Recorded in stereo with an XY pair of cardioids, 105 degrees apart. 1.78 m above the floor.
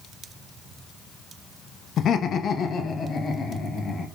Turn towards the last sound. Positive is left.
turn(degrees=40)